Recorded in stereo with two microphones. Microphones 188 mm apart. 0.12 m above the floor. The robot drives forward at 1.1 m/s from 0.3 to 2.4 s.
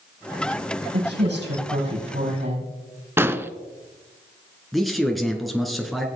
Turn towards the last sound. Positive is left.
turn(degrees=0)  # may be behind; listen again after turning